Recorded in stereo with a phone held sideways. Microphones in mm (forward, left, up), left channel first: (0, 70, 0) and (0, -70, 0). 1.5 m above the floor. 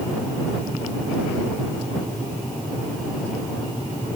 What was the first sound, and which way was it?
Only background noise.